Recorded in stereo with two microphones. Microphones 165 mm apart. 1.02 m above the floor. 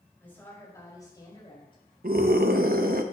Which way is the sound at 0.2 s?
10° left (ahead or behind).